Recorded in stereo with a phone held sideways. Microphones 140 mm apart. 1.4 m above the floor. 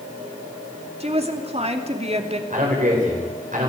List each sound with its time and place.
1.0 s a woman speaking: 50° right (ahead or behind), 2.5 m
2.5 s a man speaking: 70° right (ahead or behind), 5 m